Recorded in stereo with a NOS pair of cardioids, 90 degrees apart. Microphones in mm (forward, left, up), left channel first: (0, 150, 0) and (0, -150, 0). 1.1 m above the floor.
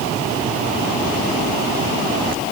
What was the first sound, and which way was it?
Only background noise.